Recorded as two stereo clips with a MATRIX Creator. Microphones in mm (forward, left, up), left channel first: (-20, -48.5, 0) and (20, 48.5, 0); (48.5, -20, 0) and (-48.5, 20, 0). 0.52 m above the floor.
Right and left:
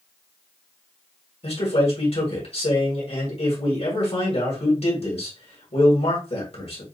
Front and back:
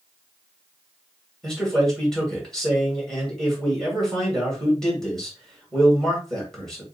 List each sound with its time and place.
1.4 s a man speaking: 110° right, 3 m